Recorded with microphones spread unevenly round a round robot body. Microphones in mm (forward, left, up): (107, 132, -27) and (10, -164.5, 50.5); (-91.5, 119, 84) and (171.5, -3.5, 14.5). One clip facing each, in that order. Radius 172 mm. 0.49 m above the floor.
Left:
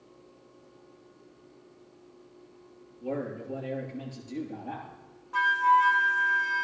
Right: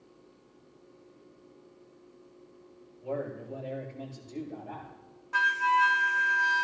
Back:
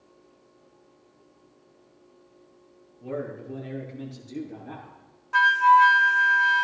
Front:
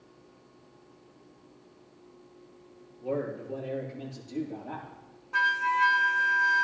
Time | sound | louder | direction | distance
3.0 | a man speaking | left 2 dB, front 1 dB | 110° left | 9.5 m
5.3 | a flute | left 4 dB, back 11 dB | 140° right | 0.7 m